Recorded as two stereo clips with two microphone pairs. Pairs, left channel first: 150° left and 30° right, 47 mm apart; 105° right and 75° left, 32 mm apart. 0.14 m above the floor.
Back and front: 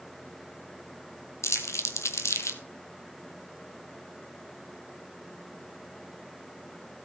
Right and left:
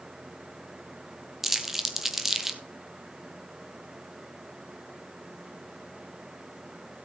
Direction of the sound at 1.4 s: 155° left.